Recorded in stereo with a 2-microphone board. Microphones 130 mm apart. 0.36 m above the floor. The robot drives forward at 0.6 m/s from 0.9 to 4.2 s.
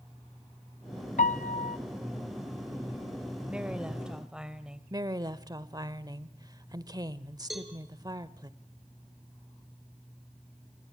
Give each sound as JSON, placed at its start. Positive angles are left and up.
{"t": 1.2, "sound": "a piano", "side_deg": 75, "distance_m": 0.7}
{"t": 3.5, "sound": "a woman speaking", "side_deg": -5, "distance_m": 1.6}
{"t": 4.9, "sound": "a woman speaking", "side_deg": -30, "distance_m": 1.0}
{"t": 7.5, "sound": "a cowbell", "side_deg": 0, "distance_m": 3.5}